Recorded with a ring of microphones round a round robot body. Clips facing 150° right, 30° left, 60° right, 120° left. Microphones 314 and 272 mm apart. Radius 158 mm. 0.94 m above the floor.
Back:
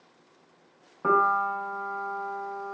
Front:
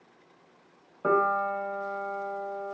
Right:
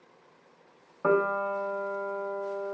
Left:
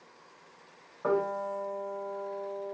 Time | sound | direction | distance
1.0 | a piano | 85° right | 0.5 m